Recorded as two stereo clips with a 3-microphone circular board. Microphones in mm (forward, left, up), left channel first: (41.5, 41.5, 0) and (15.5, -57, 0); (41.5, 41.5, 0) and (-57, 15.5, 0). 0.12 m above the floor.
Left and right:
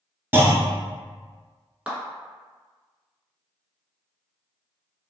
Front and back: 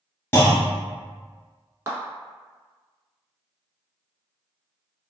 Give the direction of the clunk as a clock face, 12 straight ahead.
1 o'clock.